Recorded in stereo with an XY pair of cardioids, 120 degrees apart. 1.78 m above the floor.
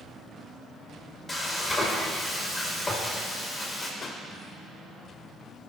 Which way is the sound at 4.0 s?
45° left.